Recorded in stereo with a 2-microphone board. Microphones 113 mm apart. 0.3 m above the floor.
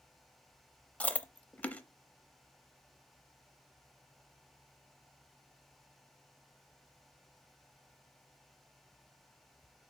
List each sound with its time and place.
1.0 s chewing: 15° left (ahead or behind), 0.6 m